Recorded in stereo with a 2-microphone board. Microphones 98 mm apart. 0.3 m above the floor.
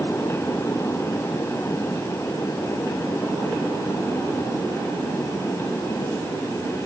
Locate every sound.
Only background noise.